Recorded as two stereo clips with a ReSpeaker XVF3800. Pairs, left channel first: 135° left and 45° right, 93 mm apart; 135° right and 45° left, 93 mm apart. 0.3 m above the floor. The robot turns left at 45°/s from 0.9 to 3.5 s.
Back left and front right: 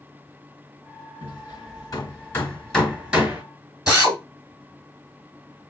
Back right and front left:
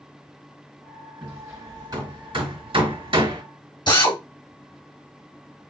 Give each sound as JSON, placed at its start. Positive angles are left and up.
{"t": 1.2, "sound": "hammering", "azimuth_deg": 120, "distance_m": 2.5}
{"t": 3.9, "sound": "a drill", "azimuth_deg": -130, "distance_m": 2.5}